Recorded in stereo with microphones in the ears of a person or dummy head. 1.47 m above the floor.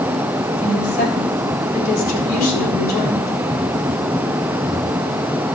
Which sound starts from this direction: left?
A woman speaking, at 0.6 s.